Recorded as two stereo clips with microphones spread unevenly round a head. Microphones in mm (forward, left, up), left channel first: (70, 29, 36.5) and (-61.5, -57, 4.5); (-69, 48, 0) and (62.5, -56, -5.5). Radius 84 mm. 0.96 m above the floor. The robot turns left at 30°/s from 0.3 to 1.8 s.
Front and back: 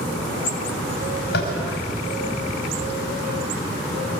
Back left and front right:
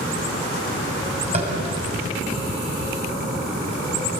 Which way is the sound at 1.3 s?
15° left.